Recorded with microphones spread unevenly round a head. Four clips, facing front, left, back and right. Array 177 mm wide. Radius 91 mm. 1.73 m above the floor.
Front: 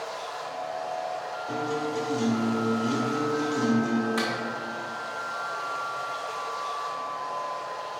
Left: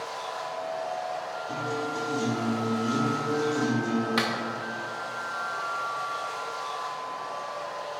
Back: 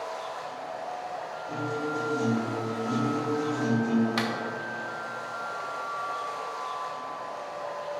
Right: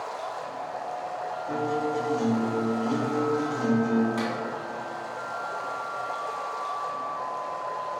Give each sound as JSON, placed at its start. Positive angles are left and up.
{"t": 0.0, "sound": "running water", "azimuth_deg": -85, "distance_m": 0.9}
{"t": 1.5, "sound": "a guitar", "azimuth_deg": -50, "distance_m": 2.5}
{"t": 4.2, "sound": "a clap", "azimuth_deg": 105, "distance_m": 2.0}